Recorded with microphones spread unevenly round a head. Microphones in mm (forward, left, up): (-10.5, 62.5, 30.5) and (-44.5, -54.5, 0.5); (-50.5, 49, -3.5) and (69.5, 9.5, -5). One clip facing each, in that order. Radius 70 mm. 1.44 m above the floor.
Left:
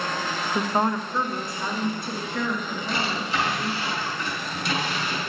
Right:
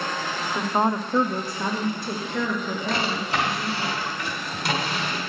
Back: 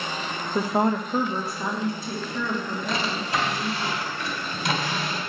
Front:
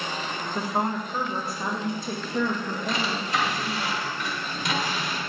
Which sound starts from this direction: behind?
A woman speaking, at 0.6 s.